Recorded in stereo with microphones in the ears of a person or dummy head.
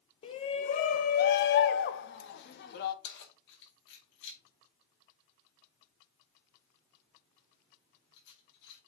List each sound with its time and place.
0.2 s a shout: 40° left (ahead or behind), 1.2 m; by 2.9 s 60° left (ahead or behind), 1.5 m
3.0 s keys jangling: 70° left (ahead or behind), 2 m